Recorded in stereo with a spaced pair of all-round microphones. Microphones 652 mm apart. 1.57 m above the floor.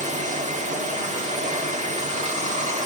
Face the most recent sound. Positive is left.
turn(degrees=-10)  # may be behind; listen again after turning